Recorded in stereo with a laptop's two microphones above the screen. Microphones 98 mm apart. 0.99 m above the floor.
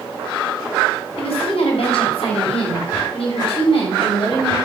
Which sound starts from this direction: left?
A woman speaking, at 1.2 s.